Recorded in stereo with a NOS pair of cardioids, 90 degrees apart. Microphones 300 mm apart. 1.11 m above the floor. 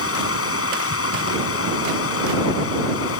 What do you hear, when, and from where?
0.0 s running water: 45° left